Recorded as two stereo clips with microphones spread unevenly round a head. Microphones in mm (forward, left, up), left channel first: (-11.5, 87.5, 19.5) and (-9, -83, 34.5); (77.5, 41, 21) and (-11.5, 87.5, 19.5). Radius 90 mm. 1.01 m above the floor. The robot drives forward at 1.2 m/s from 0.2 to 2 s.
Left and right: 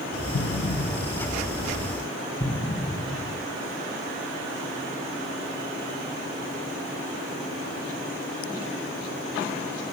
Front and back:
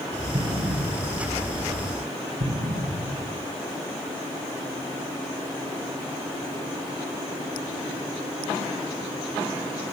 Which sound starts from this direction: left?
An explosion, at 0.3 s.